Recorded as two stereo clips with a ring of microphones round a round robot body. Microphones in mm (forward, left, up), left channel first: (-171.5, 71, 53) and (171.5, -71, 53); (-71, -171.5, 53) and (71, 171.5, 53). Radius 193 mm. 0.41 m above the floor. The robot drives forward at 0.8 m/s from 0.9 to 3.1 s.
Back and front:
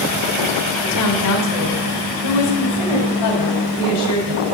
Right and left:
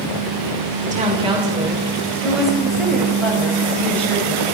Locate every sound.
0.8 s a woman speaking: 130° left, 1.5 m; by 4.4 s 160° left, 3 m